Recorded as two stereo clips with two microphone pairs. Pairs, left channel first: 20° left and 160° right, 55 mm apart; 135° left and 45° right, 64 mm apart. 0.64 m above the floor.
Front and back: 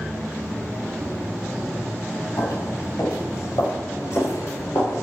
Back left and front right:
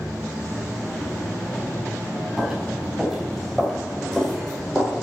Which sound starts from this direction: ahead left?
Footsteps, at 2.4 s.